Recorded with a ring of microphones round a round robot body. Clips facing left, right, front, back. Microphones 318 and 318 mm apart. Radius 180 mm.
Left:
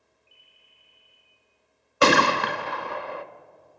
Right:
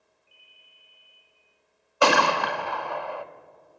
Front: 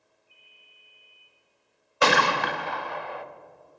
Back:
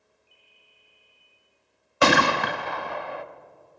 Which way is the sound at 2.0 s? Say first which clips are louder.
Left 2 dB, back 3 dB; 155° left.